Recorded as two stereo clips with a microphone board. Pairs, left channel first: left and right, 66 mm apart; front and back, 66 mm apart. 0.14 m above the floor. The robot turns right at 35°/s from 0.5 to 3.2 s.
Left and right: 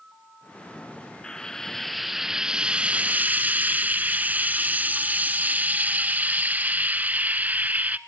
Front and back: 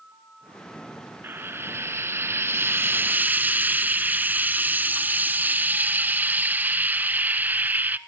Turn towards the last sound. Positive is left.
turn(degrees=-135)